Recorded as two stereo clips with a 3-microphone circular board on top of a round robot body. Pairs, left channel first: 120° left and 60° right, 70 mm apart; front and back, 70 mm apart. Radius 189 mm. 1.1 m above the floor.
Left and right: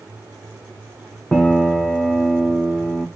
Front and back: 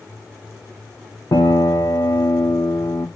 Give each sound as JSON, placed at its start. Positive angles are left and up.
{"t": 1.3, "sound": "a piano", "azimuth_deg": 45, "distance_m": 0.7}